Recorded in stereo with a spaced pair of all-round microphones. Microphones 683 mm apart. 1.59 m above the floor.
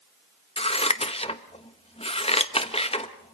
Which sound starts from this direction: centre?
Scissors, at 0.6 s.